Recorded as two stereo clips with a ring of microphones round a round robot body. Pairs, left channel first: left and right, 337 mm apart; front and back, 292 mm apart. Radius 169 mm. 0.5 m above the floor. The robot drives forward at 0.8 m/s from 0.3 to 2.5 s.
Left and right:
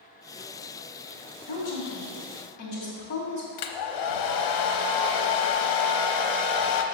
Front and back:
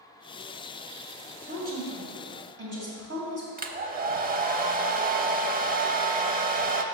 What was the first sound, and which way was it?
A woman speaking, 120° left.